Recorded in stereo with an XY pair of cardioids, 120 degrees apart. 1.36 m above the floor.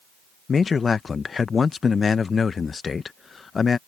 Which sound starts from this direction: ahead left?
A man speaking, at 0.5 s.